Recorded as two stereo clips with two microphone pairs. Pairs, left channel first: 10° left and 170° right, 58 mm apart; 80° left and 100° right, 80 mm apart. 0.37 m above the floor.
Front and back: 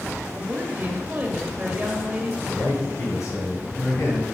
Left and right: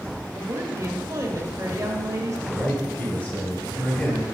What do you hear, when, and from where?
0.3 s a woman speaking: 125° right, 1.2 m
2.5 s a man speaking: 10° left, 3 m